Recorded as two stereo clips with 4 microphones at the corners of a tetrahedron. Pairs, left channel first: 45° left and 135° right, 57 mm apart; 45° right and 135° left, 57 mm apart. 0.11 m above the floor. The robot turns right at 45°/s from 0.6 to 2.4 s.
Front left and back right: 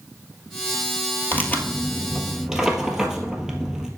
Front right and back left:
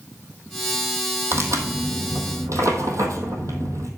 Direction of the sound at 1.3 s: 100° left.